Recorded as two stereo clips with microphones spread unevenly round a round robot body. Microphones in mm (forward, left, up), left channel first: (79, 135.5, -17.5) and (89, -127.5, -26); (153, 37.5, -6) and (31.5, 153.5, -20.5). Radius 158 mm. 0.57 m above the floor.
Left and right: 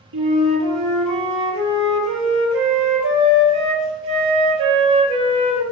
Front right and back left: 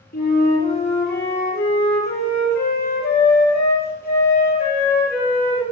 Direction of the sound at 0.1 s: 100° right.